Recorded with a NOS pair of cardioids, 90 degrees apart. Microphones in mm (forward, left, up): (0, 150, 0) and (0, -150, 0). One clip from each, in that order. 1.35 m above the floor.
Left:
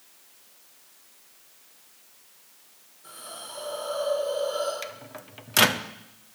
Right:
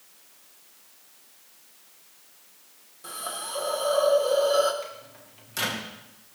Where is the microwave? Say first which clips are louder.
Left 3 dB; 70° left, 1.0 m.